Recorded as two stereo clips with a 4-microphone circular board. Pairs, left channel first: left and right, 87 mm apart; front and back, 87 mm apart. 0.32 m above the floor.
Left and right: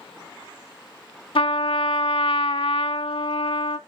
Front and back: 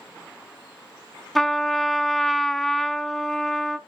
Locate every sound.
1.4 s a trumpet: 90° left, 0.5 m